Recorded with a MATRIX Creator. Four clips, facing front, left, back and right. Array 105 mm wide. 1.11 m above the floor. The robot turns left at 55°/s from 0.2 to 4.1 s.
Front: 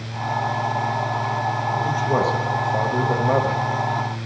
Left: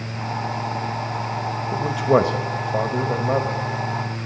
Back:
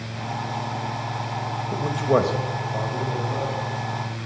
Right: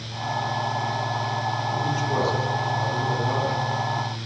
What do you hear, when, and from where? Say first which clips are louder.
1.7 s a man speaking: left 10 dB, back 3 dB; 125° left, 1.0 m; by 3.6 s 25° left, 1.0 m